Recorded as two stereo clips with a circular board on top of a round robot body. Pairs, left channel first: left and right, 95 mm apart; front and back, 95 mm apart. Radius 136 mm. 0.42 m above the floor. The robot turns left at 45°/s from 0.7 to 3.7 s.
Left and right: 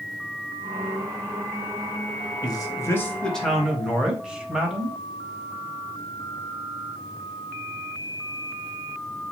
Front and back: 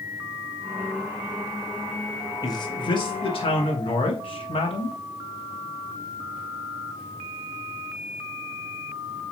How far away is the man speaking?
About 3.5 m.